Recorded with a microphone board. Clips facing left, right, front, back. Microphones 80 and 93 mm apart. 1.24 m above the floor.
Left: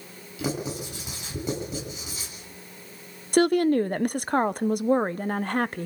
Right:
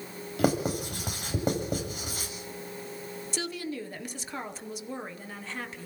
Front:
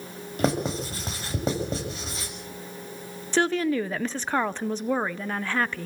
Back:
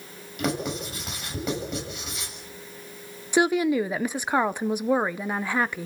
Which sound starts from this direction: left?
A woman speaking, at 3.3 s.